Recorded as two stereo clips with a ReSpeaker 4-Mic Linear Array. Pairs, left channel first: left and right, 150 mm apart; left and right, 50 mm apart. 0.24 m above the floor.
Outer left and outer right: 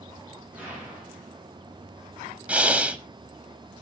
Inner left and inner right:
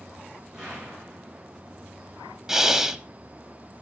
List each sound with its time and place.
0.5 s an explosion: 10° right (ahead or behind), 9.5 m
2.5 s breathing: 10° right (ahead or behind), 1.0 m